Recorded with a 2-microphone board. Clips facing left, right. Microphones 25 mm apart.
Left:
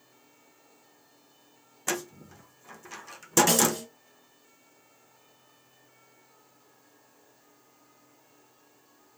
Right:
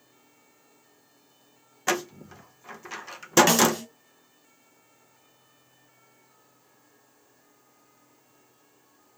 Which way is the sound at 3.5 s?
35° right (ahead or behind).